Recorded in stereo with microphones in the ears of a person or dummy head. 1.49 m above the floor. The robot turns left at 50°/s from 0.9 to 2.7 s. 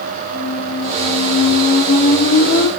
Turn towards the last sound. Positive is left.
turn(degrees=115)